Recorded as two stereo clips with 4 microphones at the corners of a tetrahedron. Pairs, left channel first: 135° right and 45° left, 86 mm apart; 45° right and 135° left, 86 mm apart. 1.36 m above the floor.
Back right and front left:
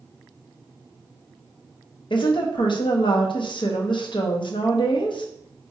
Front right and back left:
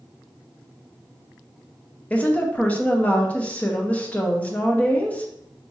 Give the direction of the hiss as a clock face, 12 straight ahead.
I don't hear a hiss.